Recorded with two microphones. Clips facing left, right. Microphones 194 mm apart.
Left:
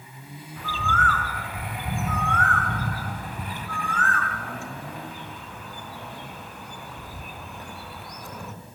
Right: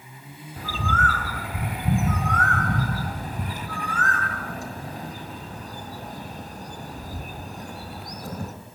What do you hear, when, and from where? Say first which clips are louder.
0.6 s a bird: right 1 dB; 40° right (ahead or behind), 4 m